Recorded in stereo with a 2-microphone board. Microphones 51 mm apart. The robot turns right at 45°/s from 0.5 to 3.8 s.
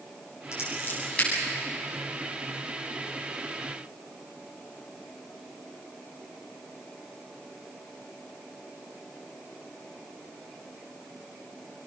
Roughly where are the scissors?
Left.